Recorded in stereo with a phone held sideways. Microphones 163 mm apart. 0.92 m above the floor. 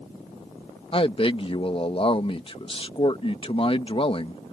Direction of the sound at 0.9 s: 35° left (ahead or behind).